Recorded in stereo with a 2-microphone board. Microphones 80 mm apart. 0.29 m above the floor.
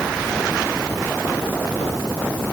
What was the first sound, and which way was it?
Only background noise.